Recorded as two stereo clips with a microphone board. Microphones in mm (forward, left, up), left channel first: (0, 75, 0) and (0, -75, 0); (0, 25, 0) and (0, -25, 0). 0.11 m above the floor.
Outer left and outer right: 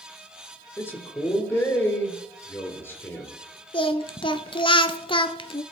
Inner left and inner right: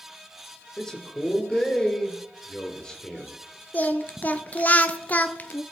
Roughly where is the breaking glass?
No breaking glass in this recording.